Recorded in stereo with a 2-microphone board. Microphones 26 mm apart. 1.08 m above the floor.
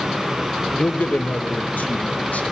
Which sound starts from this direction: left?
A man speaking, at 0.8 s.